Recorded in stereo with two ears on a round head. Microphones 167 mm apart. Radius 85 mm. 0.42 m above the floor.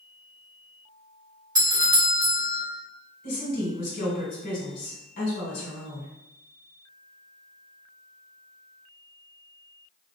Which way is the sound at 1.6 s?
20° right (ahead or behind).